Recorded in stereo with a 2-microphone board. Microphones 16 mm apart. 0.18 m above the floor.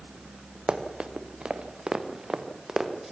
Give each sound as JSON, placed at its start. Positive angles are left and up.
{"t": 0.7, "sound": "running footsteps", "side_deg": -80, "distance_m": 2.5}